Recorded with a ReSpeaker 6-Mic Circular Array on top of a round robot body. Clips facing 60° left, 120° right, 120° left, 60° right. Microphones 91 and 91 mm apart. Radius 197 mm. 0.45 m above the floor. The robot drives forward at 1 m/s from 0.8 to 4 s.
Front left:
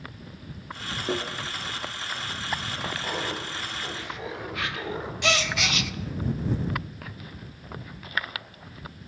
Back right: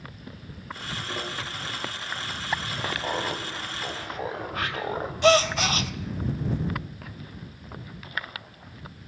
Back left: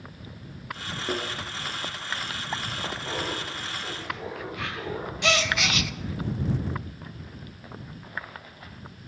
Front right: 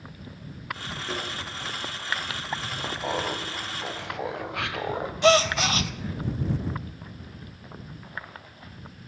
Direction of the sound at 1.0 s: 55° left.